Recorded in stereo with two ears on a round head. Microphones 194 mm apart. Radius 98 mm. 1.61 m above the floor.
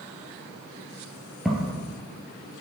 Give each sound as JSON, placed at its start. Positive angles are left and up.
{"t": 1.4, "sound": "footsteps", "side_deg": 0, "distance_m": 2.0}